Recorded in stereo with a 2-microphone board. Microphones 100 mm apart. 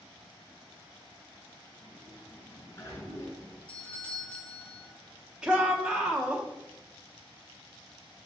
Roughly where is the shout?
Centre.